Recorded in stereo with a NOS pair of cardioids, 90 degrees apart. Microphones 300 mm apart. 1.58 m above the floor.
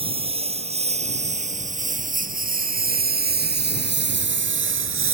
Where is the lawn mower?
20° right; by 5.1 s 45° right.